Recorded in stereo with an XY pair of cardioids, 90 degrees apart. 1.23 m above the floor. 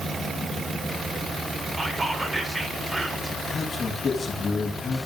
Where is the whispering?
20° right, 5.5 m.